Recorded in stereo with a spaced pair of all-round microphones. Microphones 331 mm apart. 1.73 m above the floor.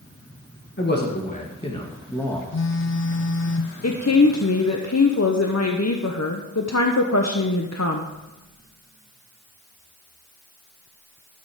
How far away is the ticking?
I don't hear ticking.